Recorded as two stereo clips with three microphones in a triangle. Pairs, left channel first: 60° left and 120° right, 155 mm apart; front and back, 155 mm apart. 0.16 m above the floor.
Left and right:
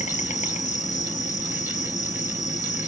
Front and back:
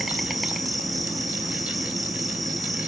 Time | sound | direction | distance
0.0 | an insect | 90° left | 1.5 m